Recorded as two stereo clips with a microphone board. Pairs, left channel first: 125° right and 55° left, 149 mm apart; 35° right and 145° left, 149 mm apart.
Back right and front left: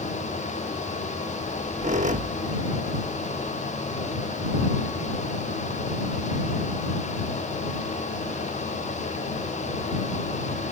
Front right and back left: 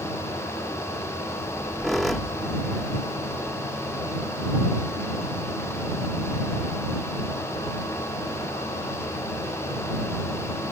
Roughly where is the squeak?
Ahead left.